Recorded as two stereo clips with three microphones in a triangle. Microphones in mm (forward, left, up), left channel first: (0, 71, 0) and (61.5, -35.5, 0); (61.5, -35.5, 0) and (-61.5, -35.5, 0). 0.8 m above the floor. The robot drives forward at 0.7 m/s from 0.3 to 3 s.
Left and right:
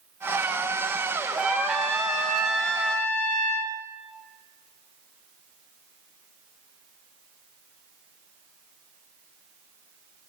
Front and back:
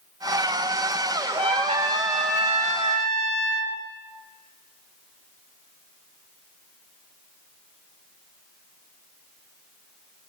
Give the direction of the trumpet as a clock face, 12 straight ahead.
5 o'clock.